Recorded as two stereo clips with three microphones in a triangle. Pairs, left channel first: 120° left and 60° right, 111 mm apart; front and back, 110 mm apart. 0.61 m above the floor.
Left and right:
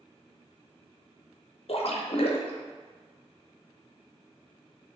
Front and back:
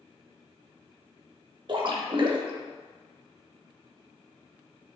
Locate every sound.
1.7 s a splash: 140° left, 0.5 m